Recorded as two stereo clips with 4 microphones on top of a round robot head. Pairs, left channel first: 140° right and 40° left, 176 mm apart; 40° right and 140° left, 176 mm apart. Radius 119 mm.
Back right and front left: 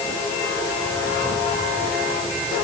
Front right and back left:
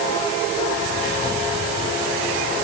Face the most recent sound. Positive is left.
No sound to turn to.